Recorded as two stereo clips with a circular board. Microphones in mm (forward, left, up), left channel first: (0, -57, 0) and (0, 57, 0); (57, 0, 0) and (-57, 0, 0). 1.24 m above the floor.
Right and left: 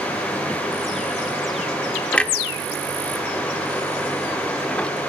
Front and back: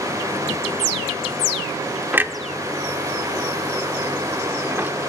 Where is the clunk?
150° right, 0.8 m.